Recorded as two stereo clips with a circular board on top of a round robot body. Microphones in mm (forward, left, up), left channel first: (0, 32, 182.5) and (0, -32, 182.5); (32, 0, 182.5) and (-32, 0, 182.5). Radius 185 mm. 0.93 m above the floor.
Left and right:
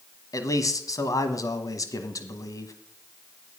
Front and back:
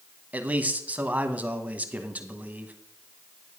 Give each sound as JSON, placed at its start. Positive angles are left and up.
{"t": 0.3, "sound": "a man speaking", "azimuth_deg": 115, "distance_m": 1.3}